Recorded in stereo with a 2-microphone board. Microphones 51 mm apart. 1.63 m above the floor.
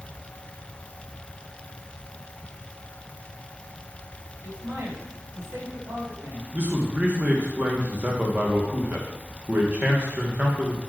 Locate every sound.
4.4 s a man speaking: 75° right (ahead or behind), 4 m
6.5 s a man speaking: 35° right (ahead or behind), 1.6 m